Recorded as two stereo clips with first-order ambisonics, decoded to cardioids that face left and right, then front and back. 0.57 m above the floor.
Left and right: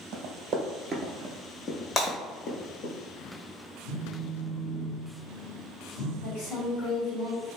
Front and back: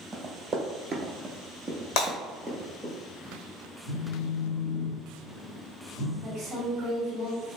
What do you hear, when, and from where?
0.1 s running footsteps: 115° right, 0.9 m; by 2.9 s 95° left, 1.2 m
2.0 s breaking glass: 25° left, 1.5 m
3.9 s a phone buzzing: 70° left, 0.8 m
6.2 s a woman speaking: 125° left, 1.3 m